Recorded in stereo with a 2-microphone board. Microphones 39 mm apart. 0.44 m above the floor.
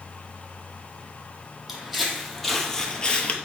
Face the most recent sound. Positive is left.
turn(degrees=40)  # may be behind; listen again after turning